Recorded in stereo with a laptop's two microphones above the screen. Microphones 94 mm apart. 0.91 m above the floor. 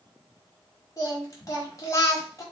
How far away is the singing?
About 1.0 m.